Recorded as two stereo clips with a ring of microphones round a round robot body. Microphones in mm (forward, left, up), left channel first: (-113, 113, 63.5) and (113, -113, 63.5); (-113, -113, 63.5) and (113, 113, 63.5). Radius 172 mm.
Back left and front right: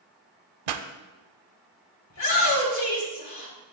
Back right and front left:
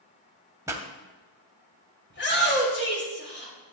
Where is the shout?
170° left, 4.5 m.